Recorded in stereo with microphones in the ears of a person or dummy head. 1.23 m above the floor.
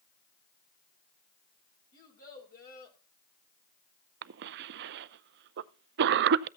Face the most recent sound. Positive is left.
turn(degrees=-60)  # may be behind; listen again after turning